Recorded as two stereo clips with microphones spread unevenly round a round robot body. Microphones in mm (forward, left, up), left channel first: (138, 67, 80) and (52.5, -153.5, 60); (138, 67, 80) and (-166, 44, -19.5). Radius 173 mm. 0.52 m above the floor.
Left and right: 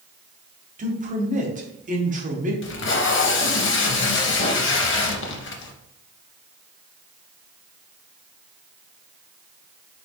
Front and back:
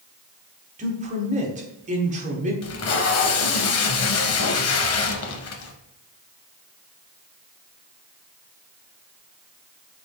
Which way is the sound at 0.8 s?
145° right.